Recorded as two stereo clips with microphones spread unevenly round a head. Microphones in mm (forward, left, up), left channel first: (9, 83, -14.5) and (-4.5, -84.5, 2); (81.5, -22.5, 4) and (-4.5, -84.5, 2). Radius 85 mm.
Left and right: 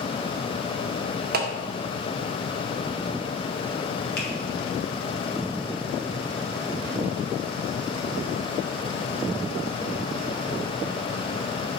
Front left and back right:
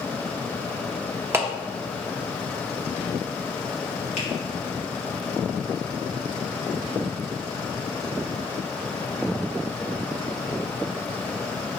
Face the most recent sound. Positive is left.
turn(degrees=60)